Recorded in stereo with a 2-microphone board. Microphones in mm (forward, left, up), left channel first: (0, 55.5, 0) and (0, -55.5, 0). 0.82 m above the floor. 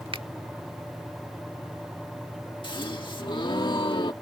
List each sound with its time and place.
0.1 s a finger snap: 55° right (ahead or behind)
2.6 s a gasp: 45° left (ahead or behind)